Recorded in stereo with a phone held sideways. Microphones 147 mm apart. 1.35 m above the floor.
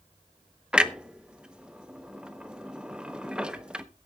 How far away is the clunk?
About 0.8 m.